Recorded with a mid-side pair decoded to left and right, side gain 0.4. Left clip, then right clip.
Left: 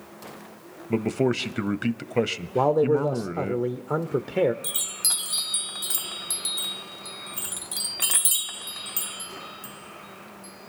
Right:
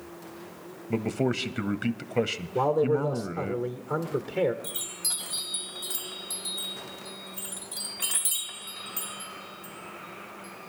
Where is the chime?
65° left, 1.1 m.